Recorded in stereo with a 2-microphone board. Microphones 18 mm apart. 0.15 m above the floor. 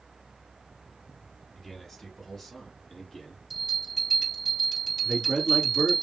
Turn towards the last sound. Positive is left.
turn(degrees=-20)  # may be behind; listen again after turning